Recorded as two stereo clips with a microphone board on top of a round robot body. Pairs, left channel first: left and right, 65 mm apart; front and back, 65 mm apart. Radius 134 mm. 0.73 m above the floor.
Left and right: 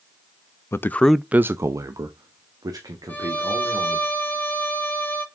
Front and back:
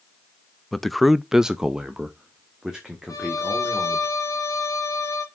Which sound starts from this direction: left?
A man speaking, at 0.7 s.